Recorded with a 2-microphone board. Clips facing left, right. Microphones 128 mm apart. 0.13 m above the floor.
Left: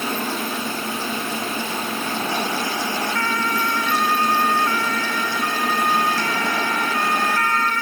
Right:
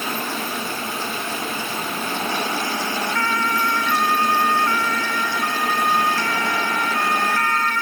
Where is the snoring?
No snoring in this recording.